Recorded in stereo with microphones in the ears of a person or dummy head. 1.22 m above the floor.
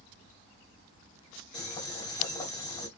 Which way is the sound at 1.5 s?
30° left (ahead or behind).